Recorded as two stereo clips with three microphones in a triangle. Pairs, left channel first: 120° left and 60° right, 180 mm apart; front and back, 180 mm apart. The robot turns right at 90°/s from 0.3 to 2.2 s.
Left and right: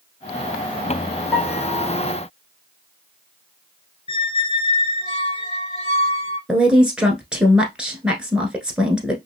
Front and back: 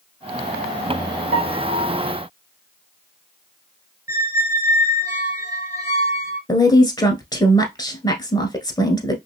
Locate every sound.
1.3 s a piano: 155° right, 1.7 m; by 2.0 s 95° right, 1.7 m
4.1 s a squeak: 120° left, 1.0 m
6.5 s a woman speaking: 20° left, 1.2 m